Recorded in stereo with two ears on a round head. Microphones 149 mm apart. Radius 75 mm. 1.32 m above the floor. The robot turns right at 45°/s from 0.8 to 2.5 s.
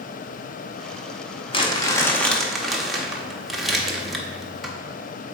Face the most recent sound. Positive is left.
turn(degrees=180)